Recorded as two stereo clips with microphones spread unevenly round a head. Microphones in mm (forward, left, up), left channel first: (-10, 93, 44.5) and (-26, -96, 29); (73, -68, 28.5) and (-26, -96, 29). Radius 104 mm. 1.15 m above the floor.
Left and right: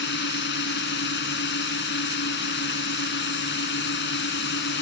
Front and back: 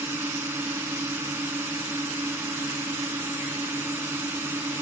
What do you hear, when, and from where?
0.0 s a drone: 115° left